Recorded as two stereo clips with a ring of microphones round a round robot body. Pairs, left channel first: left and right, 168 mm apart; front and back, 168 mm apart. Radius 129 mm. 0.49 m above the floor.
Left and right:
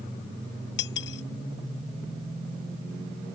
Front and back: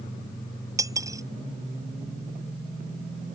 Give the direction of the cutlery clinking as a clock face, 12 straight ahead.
8 o'clock.